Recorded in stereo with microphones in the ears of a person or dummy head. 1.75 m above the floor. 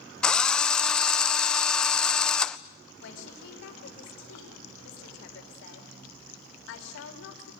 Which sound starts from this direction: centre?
A drill, at 0.2 s.